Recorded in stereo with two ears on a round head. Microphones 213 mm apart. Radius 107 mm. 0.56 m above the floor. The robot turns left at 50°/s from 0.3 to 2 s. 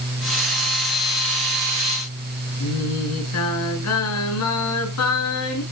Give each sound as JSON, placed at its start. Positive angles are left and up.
{"t": 2.6, "sound": "singing", "side_deg": 75, "distance_m": 5.0}